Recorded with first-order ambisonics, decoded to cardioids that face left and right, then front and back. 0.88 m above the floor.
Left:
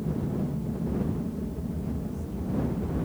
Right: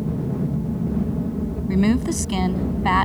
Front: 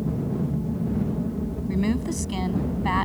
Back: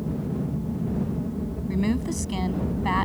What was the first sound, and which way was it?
An aircraft, 70° right.